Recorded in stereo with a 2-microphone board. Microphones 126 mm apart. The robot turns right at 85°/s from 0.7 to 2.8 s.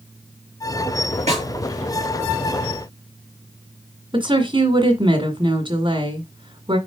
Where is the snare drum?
60° right (ahead or behind), 4 m; by 1.5 s 45° right (ahead or behind), 4 m.